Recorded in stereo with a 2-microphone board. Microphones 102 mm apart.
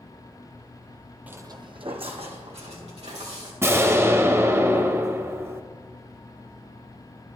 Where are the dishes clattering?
I don't hear dishes clattering.